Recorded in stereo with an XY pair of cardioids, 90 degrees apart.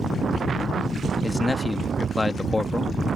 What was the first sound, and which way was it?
A man speaking, 15° left.